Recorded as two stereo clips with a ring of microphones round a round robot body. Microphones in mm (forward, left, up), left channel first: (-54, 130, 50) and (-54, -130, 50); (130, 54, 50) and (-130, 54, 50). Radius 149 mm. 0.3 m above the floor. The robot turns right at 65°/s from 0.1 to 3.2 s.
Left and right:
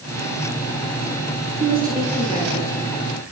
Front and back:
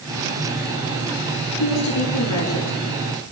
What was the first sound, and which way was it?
A woman speaking, 30° right.